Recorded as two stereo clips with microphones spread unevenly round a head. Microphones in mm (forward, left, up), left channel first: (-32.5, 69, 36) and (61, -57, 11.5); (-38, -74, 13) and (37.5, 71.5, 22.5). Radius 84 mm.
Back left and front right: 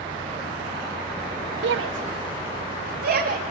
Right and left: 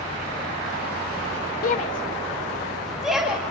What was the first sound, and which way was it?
A shout, 75° right.